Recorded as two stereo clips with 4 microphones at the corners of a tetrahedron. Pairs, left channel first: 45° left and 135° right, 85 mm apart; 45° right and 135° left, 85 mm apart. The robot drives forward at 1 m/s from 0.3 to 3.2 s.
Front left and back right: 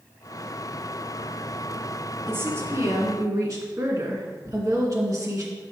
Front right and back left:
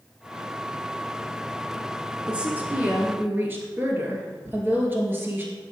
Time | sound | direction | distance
2.3 | a woman speaking | 155° right | 1.5 m
4.4 | tearing paper | 175° left | 2.5 m